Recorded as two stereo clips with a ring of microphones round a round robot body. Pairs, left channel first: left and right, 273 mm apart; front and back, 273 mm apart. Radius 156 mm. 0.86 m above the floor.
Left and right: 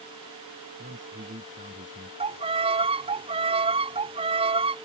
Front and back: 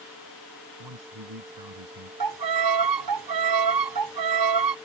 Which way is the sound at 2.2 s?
165° right.